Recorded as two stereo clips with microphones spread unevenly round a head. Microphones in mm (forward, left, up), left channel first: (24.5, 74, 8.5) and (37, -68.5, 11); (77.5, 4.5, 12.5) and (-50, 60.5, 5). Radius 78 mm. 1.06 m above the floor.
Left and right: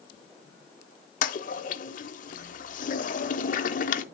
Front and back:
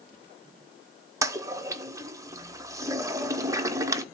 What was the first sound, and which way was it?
A toilet flushing, 90° left.